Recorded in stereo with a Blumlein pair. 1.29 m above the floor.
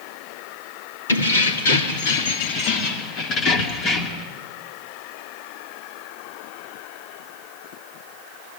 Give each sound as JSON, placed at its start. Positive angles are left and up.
{"t": 1.1, "sound": "keys jangling", "azimuth_deg": 70, "distance_m": 2.0}